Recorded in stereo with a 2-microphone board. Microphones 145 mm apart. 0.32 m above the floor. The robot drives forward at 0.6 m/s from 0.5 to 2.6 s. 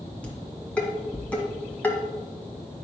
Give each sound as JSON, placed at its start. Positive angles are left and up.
{"t": 0.2, "sound": "dishes clattering", "side_deg": 10, "distance_m": 2.5}